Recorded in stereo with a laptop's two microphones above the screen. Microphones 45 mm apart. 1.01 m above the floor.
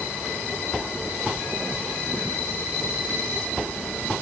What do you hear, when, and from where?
Only background noise.